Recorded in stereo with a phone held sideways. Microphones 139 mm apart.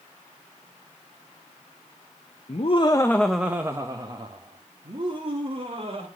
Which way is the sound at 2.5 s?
55° left (ahead or behind).